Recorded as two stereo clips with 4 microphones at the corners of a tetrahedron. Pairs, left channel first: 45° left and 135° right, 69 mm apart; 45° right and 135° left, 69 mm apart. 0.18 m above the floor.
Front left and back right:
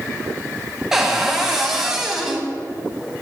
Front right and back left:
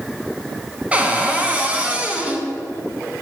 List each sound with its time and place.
0.9 s a cupboard door: 150° left, 0.7 m